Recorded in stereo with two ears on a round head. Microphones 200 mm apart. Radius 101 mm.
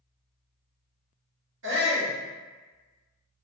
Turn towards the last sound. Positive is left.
turn(degrees=-55)  # may be behind; listen again after turning